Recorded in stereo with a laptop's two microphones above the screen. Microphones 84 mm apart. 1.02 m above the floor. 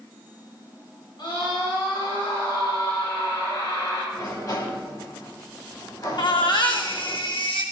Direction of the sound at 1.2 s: 65° left (ahead or behind).